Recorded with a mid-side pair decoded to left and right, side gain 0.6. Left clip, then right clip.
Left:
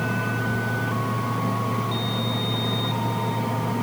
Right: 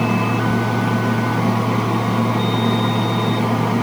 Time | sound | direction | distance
0.0 | a fan | 50° right | 1.4 m